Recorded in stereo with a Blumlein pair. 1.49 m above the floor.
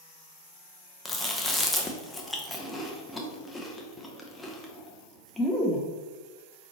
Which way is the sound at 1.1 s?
5° left.